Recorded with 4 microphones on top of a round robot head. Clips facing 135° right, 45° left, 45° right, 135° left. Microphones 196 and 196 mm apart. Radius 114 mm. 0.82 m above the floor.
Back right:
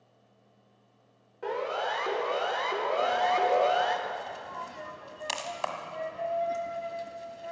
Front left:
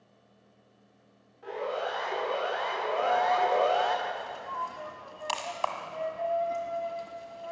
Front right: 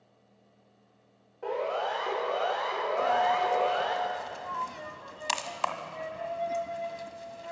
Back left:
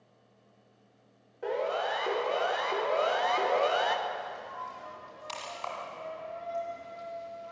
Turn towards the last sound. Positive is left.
turn(degrees=-65)